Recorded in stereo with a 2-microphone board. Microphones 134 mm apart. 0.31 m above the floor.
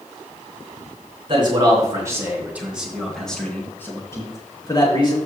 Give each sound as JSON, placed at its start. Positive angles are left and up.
{"t": 1.3, "sound": "a man speaking", "side_deg": -35, "distance_m": 3.5}